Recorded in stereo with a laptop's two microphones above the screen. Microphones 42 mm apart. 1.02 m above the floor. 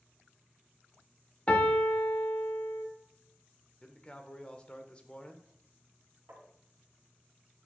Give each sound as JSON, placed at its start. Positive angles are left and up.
{"t": 1.5, "sound": "a piano", "side_deg": 30, "distance_m": 1.1}
{"t": 3.8, "sound": "a man speaking", "side_deg": 25, "distance_m": 0.7}
{"t": 6.3, "sound": "tapping", "side_deg": -80, "distance_m": 2.0}